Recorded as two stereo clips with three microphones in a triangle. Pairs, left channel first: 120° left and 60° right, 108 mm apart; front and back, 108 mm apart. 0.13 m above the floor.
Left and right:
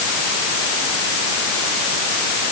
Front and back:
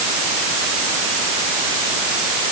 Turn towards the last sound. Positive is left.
No sound to turn to.